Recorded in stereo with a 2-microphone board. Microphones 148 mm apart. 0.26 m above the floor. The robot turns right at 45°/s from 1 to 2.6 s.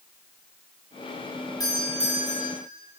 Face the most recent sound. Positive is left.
turn(degrees=70)